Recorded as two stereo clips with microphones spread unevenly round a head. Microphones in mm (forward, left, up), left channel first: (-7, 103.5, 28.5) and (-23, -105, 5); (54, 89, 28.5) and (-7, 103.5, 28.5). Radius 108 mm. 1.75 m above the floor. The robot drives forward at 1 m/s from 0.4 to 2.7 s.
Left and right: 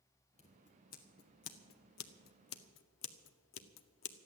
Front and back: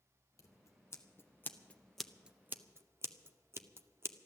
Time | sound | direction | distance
0.4 | scissors | 25° left | 2 m